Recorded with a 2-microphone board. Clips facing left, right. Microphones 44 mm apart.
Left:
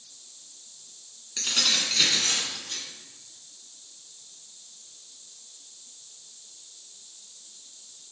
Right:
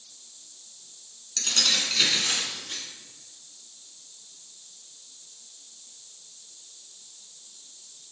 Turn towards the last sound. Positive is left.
turn(degrees=-25)  # may be behind; listen again after turning